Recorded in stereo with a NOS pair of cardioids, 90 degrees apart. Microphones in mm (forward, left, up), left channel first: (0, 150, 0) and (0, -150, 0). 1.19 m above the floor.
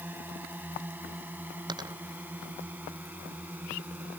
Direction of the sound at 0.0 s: 5° right.